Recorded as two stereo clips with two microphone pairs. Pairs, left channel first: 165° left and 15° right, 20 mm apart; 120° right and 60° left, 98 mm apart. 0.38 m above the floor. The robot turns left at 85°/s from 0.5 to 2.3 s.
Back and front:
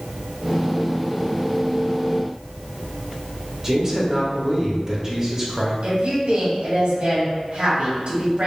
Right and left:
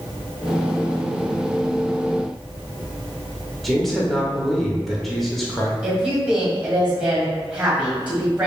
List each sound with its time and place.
3.6 s a man speaking: 30° right, 0.9 m
5.8 s a woman speaking: 15° right, 1.7 m